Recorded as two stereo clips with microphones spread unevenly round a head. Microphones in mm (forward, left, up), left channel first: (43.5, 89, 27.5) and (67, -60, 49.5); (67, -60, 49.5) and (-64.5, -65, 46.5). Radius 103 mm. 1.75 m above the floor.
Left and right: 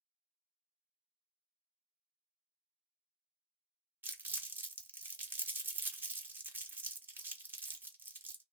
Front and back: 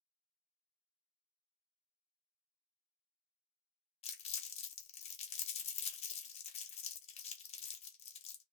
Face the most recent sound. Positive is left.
turn(degrees=-15)